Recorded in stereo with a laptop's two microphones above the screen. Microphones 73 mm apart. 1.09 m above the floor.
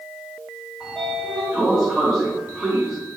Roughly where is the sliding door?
Centre.